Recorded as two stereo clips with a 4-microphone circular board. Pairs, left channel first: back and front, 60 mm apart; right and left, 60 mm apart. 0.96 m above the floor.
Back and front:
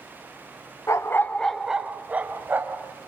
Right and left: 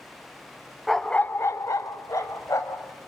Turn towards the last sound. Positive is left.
turn(degrees=-55)